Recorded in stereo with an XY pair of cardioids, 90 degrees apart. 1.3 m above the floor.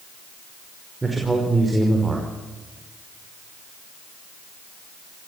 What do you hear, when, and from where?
1.0 s a man speaking: 20° right, 5 m